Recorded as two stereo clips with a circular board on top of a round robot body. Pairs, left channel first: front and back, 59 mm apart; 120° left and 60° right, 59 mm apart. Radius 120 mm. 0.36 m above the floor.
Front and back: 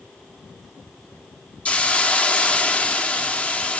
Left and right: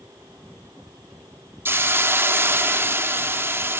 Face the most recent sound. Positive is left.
turn(degrees=-55)